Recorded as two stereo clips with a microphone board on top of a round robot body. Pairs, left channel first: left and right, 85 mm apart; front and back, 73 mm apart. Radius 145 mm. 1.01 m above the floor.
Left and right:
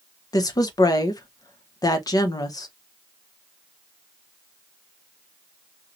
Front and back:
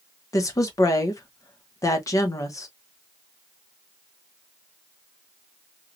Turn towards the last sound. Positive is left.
turn(degrees=45)